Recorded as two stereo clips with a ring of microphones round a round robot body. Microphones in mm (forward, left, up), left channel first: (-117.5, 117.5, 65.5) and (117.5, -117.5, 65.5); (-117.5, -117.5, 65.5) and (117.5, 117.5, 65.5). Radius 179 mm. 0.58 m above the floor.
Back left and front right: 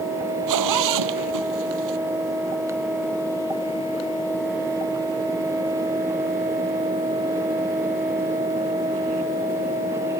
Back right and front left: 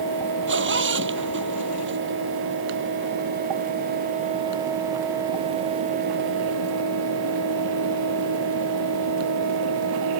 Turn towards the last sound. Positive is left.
turn(degrees=-10)